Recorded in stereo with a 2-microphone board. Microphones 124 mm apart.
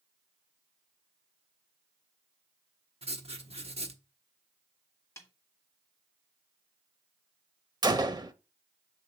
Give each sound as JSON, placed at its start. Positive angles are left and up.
{"t": 3.0, "sound": "writing", "side_deg": -55, "distance_m": 1.0}
{"t": 5.2, "sound": "a snare drum", "side_deg": 20, "distance_m": 1.1}
{"t": 7.8, "sound": "a gunshot", "side_deg": -35, "distance_m": 0.6}